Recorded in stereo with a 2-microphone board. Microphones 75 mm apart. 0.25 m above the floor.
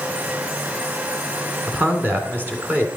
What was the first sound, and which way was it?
A man speaking, 25° right (ahead or behind).